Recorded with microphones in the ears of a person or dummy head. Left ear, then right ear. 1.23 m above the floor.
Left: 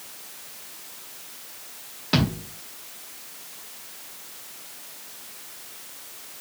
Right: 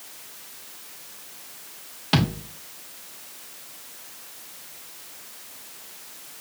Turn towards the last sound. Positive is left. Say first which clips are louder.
# right 1 dB
turn(degrees=-30)  # may be behind; listen again after turning